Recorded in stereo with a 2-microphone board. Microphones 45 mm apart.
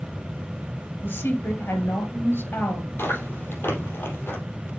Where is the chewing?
55° left (ahead or behind), 3.5 m.